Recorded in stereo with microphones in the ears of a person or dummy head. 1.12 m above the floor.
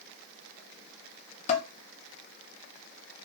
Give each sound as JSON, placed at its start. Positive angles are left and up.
{"t": 1.5, "sound": "dishes clattering", "side_deg": 45, "distance_m": 0.7}